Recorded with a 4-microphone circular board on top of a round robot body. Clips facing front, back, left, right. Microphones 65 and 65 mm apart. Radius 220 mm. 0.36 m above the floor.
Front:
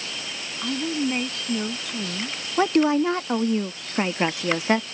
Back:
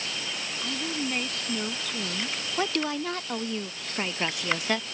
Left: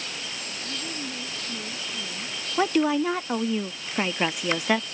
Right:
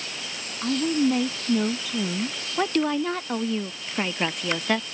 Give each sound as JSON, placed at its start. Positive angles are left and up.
{"t": 0.6, "sound": "a woman speaking", "azimuth_deg": -70}
{"t": 2.6, "sound": "a woman speaking", "azimuth_deg": 15}